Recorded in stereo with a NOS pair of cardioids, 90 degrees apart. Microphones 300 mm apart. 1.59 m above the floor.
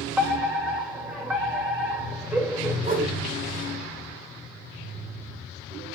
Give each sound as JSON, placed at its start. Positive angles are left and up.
{"t": 0.2, "sound": "a fire alarm", "azimuth_deg": -10, "distance_m": 4.5}
{"t": 2.8, "sound": "a whoosh", "azimuth_deg": -30, "distance_m": 7.5}